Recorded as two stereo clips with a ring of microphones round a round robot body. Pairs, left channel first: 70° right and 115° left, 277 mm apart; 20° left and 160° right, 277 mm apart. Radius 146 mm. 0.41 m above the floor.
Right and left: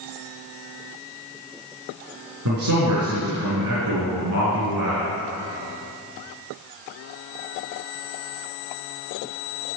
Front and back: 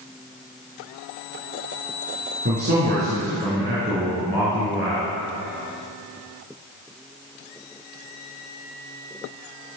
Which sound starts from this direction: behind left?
A man speaking, at 2.5 s.